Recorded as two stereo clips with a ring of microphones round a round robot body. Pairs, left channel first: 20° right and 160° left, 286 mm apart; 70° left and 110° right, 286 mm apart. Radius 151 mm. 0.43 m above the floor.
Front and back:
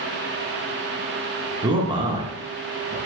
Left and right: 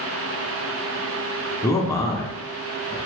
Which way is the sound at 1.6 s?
125° left.